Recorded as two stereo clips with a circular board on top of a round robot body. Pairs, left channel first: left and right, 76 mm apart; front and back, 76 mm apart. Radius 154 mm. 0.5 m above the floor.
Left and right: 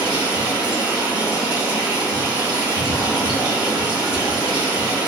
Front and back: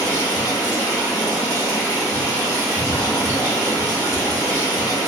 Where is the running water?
130° right, 1.4 m.